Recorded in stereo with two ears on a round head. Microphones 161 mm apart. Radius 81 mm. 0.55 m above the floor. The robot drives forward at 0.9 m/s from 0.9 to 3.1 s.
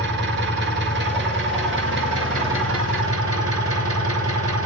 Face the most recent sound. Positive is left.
turn(degrees=-85)